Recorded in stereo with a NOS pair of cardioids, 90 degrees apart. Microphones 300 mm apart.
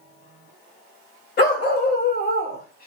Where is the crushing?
No crushing in this recording.